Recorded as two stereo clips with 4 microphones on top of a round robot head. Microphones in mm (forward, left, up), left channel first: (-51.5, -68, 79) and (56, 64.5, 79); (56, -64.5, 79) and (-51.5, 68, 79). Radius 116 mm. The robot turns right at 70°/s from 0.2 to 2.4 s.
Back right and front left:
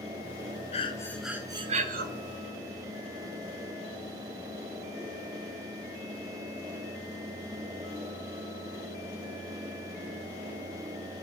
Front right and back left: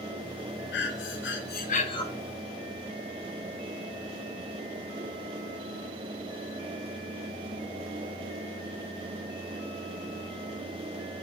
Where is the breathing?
75° right, 1.2 m; by 2.1 s 20° left, 1.2 m.